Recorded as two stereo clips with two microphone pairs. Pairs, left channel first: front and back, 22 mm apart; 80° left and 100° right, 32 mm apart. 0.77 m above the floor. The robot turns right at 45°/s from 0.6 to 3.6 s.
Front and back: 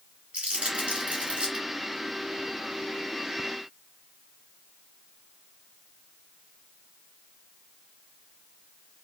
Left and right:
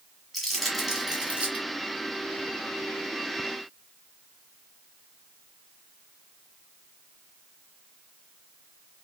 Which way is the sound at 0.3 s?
170° left.